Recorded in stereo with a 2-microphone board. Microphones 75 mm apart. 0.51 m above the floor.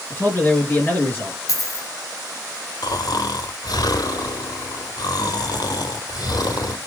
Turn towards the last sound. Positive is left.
turn(degrees=65)  # may be behind; listen again after turning